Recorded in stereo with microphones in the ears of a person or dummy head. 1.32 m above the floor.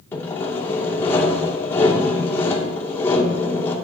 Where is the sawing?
10° left (ahead or behind), 2.5 m.